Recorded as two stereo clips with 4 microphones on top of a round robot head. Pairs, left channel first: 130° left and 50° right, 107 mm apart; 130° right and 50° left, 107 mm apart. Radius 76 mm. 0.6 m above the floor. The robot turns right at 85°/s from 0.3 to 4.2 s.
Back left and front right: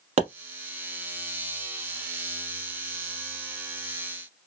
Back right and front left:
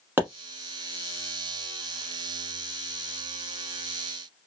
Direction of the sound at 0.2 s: 20° right.